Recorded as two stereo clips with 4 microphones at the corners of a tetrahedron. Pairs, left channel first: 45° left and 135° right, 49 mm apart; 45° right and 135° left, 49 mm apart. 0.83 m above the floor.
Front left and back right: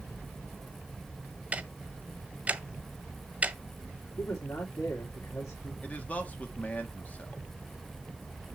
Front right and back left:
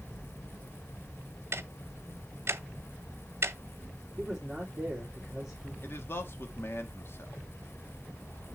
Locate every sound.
1.5 s ticking: 165° left, 0.7 m
4.2 s a man speaking: 50° left, 2 m
5.8 s a man speaking: 10° right, 1.3 m